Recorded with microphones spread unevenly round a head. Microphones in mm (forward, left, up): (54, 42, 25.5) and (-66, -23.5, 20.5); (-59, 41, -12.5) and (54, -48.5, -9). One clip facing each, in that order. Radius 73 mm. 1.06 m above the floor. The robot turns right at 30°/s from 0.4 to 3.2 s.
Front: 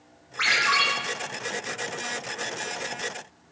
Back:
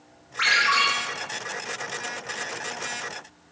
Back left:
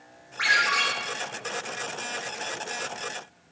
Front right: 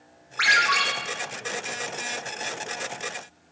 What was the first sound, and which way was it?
A ringtone, 55° right.